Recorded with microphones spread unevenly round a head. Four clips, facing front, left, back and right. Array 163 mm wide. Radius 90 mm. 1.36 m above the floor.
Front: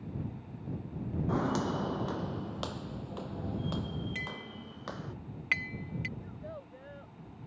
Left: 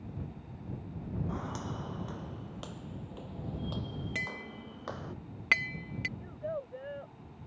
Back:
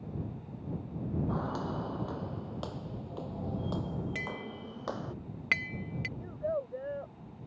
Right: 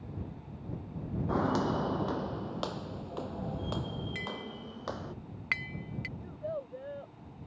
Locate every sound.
1.3 s footsteps: 55° right; by 5.2 s 165° right
4.2 s tapping: 145° left
6.2 s a child speaking: 175° right